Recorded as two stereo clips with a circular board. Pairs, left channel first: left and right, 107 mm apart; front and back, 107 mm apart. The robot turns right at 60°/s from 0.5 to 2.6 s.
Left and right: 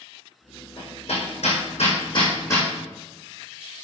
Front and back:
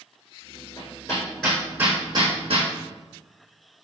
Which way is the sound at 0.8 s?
45° left.